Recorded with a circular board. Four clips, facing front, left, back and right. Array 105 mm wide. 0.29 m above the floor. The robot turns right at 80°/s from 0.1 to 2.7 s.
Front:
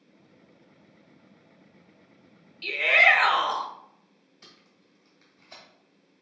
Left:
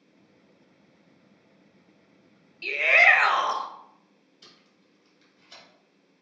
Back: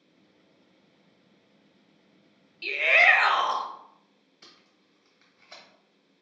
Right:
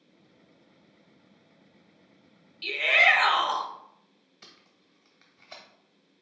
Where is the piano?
I don't hear a piano.